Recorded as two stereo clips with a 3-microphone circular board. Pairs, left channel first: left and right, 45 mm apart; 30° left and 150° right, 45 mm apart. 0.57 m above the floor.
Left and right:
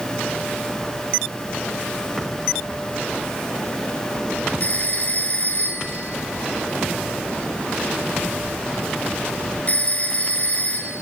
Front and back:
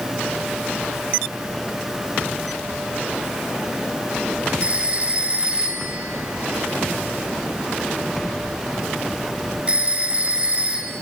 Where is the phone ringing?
145° left, 4.5 m.